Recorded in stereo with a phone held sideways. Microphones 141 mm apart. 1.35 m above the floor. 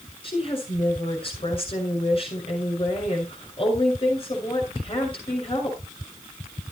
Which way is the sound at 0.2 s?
40° left (ahead or behind).